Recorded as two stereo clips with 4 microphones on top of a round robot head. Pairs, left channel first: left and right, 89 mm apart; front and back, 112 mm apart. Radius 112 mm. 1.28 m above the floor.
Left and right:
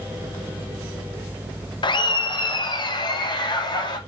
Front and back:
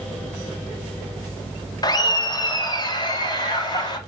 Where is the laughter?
55° left, 1.1 m; by 4.0 s 50° left, 2.5 m.